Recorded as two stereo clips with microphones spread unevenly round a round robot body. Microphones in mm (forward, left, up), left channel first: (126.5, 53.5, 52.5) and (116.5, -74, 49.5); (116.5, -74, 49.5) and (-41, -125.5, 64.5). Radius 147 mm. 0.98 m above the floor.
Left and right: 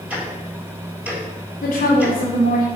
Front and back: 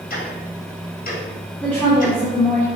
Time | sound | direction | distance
0.1 | ticking | 15° right | 4 m
1.6 | a woman speaking | 110° left | 2 m